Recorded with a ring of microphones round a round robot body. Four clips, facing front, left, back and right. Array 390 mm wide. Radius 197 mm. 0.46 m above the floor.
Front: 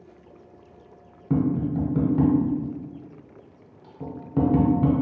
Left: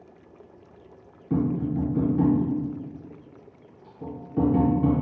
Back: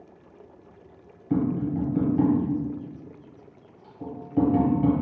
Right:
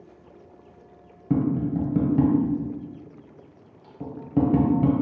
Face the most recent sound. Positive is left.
turn(degrees=-65)